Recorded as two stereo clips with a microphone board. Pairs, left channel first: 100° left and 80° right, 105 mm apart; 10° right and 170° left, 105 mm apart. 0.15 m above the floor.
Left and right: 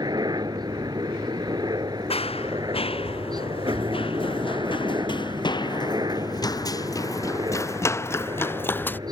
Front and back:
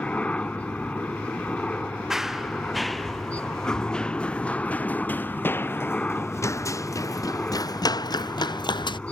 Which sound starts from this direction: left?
Running footsteps, at 2.1 s.